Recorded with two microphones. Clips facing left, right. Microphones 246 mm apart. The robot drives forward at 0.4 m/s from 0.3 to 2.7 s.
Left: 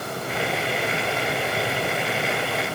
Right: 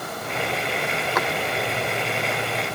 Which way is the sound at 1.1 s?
75° right (ahead or behind).